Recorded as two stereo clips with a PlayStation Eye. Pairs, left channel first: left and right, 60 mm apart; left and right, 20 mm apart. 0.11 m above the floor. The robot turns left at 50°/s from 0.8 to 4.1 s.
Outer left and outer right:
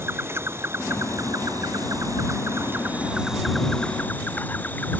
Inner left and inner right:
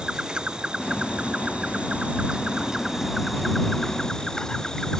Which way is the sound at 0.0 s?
45° right.